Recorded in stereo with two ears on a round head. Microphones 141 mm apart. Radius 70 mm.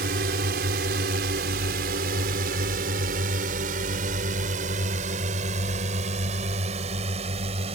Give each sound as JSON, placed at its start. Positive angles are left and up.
{"t": 0.0, "sound": "a drone", "side_deg": -65}